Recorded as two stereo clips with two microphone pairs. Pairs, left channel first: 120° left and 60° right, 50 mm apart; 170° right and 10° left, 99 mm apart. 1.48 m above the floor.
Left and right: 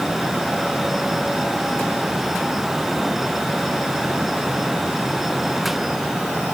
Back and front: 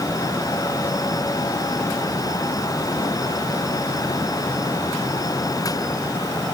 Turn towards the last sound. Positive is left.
No sound to turn to.